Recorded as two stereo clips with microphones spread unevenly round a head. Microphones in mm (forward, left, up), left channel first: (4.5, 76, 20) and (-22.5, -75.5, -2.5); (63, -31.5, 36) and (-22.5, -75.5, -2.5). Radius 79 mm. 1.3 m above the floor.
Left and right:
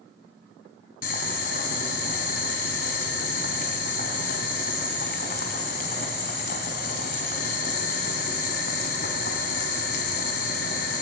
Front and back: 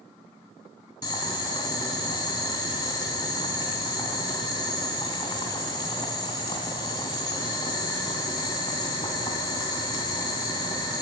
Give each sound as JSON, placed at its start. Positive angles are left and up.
{"t": 1.0, "sound": "boiling", "azimuth_deg": 65, "distance_m": 2.5}